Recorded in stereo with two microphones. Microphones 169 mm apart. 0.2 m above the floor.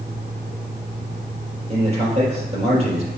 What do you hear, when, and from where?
1.7 s a man speaking: 40° right (ahead or behind), 4 m